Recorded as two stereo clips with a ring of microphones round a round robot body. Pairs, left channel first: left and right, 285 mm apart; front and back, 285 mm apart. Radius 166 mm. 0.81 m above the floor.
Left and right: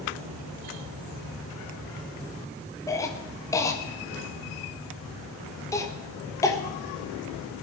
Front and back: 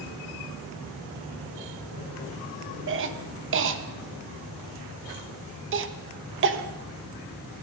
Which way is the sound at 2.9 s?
165° left.